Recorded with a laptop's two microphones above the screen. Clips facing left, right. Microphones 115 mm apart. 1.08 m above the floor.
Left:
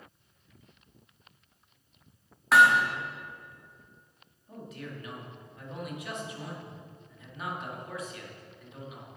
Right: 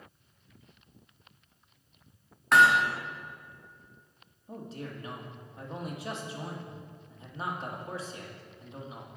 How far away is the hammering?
About 1.4 m.